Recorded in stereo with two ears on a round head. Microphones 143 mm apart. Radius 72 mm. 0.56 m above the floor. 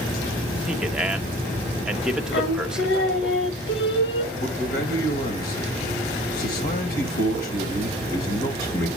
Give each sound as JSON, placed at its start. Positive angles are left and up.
{"t": 0.7, "sound": "a man speaking", "side_deg": -5, "distance_m": 1.1}
{"t": 2.3, "sound": "singing", "side_deg": 80, "distance_m": 1.2}
{"t": 4.3, "sound": "a man speaking", "side_deg": 70, "distance_m": 2.5}